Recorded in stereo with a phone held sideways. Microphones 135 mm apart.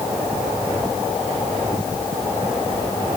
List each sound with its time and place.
Only background noise.